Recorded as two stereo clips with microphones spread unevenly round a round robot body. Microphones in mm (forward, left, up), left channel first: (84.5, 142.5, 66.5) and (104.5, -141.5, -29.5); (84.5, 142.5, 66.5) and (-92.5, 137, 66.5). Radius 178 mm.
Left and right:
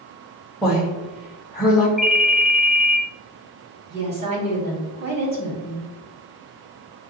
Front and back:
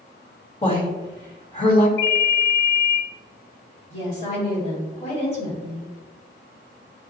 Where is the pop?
I don't hear a pop.